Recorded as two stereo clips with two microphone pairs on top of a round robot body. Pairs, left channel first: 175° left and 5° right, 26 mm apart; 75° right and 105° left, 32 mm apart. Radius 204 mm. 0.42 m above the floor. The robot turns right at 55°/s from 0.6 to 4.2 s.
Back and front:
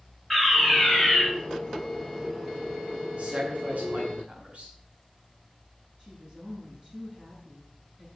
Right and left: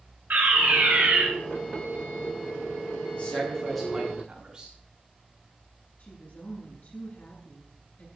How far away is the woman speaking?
About 9 m.